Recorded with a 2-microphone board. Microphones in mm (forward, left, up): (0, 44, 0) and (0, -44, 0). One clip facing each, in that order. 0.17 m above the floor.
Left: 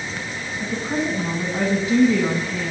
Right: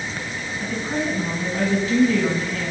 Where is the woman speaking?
20° left (ahead or behind), 1.1 m.